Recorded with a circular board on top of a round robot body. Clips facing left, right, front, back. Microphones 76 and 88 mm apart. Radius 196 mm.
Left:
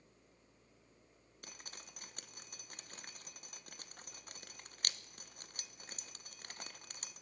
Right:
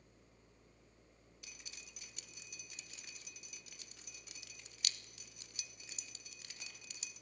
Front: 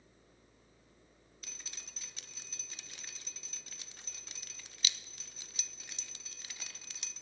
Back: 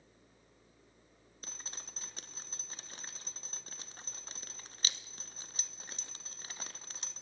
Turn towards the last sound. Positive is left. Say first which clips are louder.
# left 5 dB, back 4 dB
turn(degrees=130)